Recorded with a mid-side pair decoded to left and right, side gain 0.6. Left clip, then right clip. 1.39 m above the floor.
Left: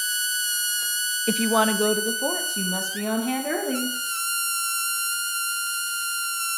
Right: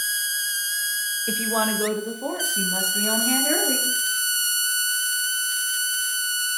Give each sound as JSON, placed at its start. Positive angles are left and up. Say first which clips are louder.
{"t": 1.3, "sound": "a woman speaking", "louder": "left 4 dB", "azimuth_deg": 35, "distance_m": 0.5}